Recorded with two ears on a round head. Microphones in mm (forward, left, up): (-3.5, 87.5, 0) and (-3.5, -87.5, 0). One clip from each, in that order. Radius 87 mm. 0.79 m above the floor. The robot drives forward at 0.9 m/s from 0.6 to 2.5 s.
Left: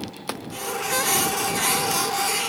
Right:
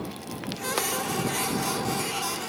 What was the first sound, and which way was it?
Only background noise.